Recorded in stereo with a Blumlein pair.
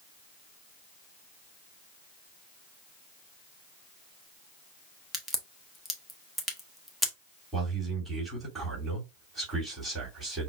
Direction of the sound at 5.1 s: Straight ahead.